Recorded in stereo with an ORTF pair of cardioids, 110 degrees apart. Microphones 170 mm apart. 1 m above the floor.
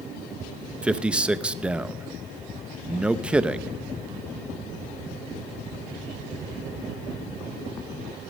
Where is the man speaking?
5° right, 0.6 m.